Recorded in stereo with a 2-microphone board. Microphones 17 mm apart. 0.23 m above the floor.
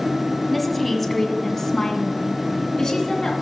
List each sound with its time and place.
0.5 s a woman speaking: centre (ahead or behind), 1.3 m; by 3.3 s 30° left (ahead or behind), 2.5 m